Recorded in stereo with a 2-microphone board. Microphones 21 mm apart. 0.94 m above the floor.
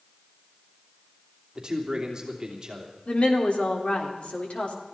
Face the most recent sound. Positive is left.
turn(degrees=75)  # may be behind; listen again after turning